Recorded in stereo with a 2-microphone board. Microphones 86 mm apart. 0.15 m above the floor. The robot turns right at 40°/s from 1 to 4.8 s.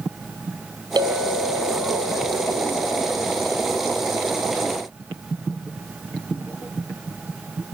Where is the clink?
115° right, 2.5 m; by 4.2 s 15° left, 2.5 m.